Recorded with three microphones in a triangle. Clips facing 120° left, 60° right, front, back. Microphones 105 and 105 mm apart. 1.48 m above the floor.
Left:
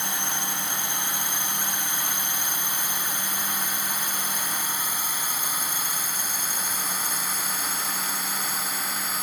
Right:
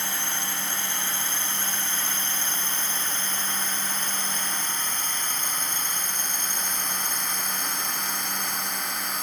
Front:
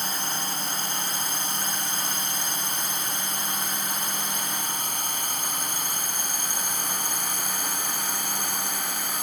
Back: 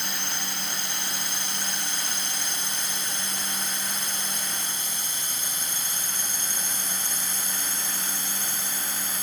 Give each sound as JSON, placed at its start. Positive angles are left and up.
{"t": 0.0, "sound": "a drone", "azimuth_deg": 45}